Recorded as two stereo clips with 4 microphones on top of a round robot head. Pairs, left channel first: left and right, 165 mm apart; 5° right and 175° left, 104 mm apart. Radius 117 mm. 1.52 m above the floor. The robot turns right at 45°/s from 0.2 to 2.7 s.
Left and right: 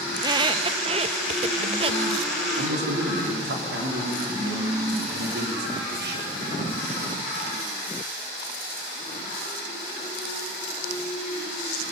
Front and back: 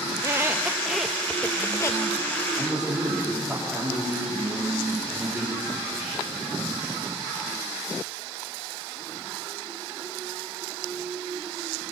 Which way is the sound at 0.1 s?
135° right.